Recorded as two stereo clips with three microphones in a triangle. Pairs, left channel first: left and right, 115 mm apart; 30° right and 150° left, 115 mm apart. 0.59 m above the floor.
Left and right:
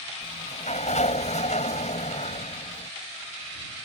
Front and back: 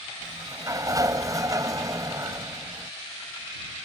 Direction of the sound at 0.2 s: 90° left.